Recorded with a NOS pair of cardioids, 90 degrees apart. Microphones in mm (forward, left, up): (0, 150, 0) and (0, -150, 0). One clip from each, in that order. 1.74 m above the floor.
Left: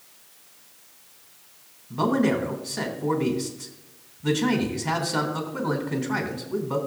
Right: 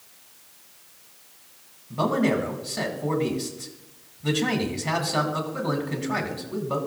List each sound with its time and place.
1.9 s a man speaking: 15° right, 3 m